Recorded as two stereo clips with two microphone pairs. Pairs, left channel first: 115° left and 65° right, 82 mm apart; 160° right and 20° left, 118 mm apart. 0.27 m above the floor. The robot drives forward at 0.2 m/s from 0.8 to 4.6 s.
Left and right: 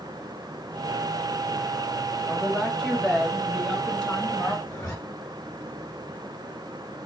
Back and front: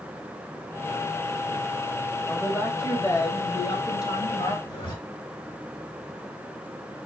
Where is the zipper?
155° left, 2.5 m.